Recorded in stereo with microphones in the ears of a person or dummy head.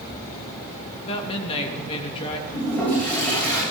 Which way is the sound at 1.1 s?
30° left (ahead or behind).